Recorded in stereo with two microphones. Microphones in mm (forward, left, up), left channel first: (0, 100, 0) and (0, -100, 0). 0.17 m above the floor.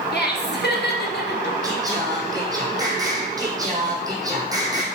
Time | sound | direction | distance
0.1 | laughter | 60° left (ahead or behind) | 2.5 m
1.6 | singing | 20° right (ahead or behind) | 2.5 m